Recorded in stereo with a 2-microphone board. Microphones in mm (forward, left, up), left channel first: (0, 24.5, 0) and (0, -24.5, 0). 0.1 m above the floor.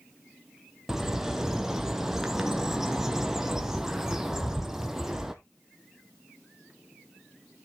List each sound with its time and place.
0.9 s a bird: 10° right (ahead or behind), 0.9 m